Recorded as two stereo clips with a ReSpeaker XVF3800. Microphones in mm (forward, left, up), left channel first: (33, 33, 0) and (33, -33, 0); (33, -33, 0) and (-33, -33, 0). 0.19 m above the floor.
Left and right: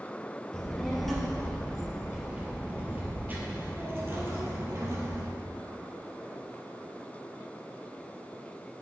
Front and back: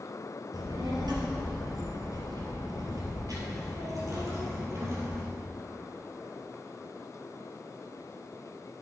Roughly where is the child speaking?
Behind.